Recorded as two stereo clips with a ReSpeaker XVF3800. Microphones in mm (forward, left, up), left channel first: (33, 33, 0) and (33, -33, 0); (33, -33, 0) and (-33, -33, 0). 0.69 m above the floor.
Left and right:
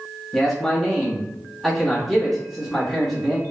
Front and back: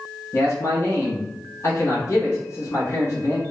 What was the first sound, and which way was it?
A man speaking, 5° left.